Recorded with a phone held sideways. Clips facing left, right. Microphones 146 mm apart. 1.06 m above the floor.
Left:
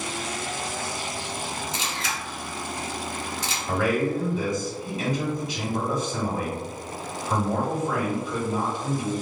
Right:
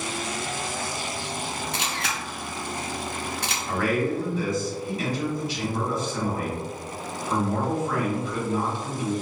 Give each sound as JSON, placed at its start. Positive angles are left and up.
{"t": 1.7, "sound": "a camera shutter", "side_deg": -65, "distance_m": 0.6}
{"t": 3.7, "sound": "a man speaking", "side_deg": 20, "distance_m": 1.3}